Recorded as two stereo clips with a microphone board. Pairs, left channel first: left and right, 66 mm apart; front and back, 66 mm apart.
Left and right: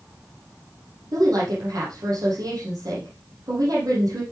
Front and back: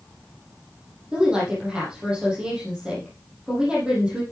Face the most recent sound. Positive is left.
turn(degrees=-105)